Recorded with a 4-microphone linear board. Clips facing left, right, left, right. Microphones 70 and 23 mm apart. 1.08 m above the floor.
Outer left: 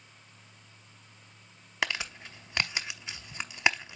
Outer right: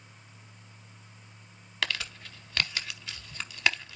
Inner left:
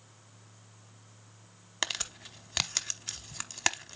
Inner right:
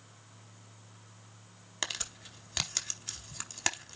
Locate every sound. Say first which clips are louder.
1.8 s crumpling: outer left 1 dB, inner left 3 dB; 20° left (ahead or behind), 0.9 m